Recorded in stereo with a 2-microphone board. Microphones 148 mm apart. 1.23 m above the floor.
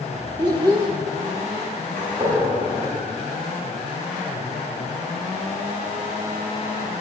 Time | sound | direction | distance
0.4 | a child speaking | 30° right (ahead or behind) | 0.8 m
2.0 | a gunshot | 75° right (ahead or behind) | 5.5 m